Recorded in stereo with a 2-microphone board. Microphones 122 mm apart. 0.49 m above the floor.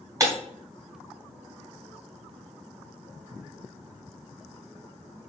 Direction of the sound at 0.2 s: 25° right (ahead or behind).